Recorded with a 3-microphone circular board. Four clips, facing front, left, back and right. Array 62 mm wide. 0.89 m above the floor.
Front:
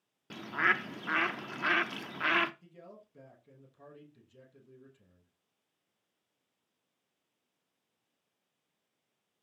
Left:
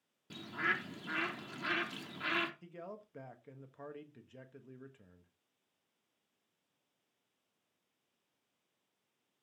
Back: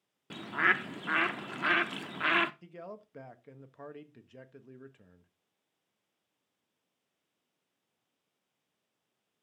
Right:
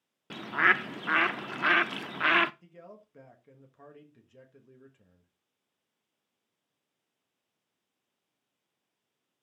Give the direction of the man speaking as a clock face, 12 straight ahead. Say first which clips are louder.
Left 2 dB, back 7 dB; 7 o'clock.